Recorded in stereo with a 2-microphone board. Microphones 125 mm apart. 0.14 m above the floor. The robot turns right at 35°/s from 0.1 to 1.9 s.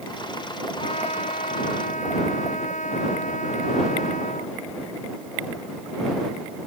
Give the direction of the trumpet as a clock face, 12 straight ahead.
10 o'clock.